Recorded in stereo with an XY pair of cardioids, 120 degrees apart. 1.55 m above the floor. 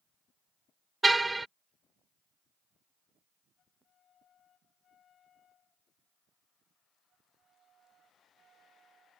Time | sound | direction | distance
1.0 | a car horn | 15° right | ?